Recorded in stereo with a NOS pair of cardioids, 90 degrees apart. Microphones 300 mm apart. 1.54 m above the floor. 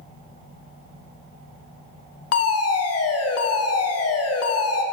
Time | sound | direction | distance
2.3 | a fire alarm | 55° left | 1.7 m